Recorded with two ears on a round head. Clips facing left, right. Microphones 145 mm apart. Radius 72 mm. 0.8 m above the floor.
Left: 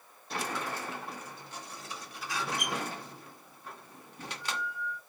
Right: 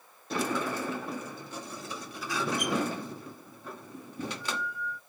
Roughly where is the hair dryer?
No hair dryer in this recording.